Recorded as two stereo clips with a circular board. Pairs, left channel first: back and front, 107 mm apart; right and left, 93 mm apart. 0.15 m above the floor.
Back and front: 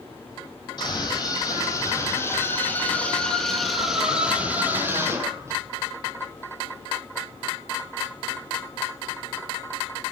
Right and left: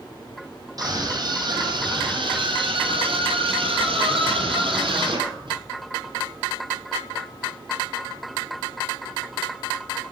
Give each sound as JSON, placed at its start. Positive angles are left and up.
{"t": 0.8, "sound": "a scream", "azimuth_deg": 135, "distance_m": 6.0}